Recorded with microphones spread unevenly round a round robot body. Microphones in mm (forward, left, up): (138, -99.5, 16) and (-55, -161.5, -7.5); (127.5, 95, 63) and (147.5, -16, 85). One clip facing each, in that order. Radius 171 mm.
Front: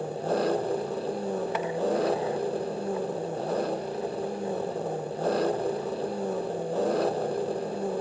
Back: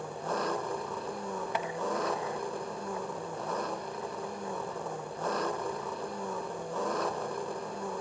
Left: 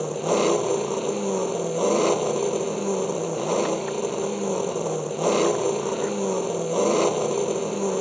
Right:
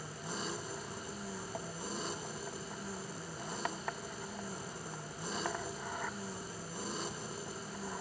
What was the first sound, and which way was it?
An engine running, 90° left.